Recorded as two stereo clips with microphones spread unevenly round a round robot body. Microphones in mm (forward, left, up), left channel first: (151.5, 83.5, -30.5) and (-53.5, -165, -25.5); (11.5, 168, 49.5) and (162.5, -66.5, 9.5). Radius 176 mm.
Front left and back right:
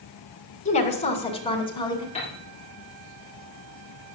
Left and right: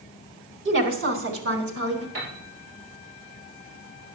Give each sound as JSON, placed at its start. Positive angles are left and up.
{"t": 0.7, "sound": "a woman speaking", "azimuth_deg": -15, "distance_m": 3.5}
{"t": 2.1, "sound": "a piano", "azimuth_deg": -20, "distance_m": 7.0}